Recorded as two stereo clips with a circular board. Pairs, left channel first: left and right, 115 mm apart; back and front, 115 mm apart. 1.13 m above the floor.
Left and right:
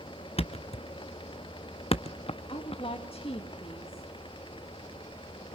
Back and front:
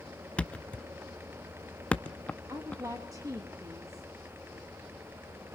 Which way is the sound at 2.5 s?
60° left.